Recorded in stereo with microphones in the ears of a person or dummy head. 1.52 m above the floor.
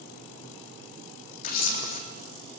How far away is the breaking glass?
No breaking glass in this recording.